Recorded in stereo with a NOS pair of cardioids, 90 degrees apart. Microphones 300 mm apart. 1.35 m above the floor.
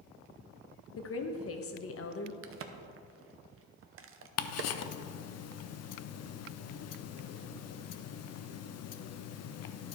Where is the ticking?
55° left, 0.5 m.